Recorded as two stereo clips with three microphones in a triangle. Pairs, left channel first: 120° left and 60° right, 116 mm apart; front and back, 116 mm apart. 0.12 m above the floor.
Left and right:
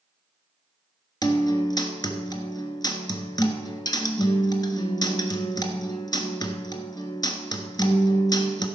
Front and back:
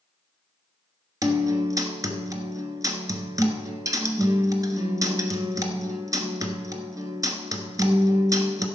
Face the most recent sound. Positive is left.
turn(degrees=145)